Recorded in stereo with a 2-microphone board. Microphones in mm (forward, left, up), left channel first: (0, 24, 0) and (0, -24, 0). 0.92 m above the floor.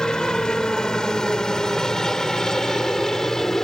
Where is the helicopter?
15° left (ahead or behind); by 3.6 s 10° left (ahead or behind).